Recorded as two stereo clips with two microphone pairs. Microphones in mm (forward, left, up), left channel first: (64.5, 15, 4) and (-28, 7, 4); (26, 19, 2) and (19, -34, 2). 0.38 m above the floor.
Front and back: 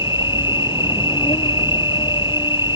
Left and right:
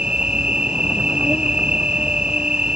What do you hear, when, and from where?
0.0 s an insect: 25° right